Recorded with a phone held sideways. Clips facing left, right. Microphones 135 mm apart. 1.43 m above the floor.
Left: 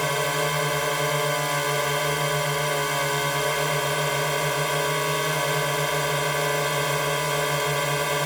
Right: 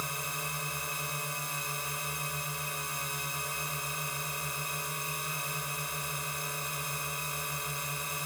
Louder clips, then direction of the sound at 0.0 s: Left 16 dB; 70° left (ahead or behind).